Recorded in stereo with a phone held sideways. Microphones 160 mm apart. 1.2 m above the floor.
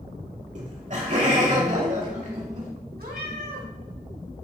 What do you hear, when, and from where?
0.6 s laughter: 50° right (ahead or behind), 2.5 m
3.0 s a cat meowing: 75° right (ahead or behind), 2.5 m